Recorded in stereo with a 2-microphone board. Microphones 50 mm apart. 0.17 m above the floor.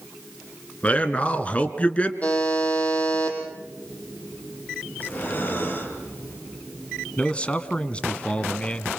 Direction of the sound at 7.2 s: 25° left (ahead or behind).